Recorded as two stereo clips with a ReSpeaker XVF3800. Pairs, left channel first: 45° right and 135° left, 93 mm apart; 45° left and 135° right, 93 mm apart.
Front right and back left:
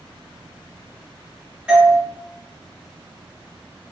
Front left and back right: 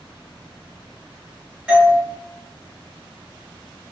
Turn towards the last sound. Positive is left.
turn(degrees=-175)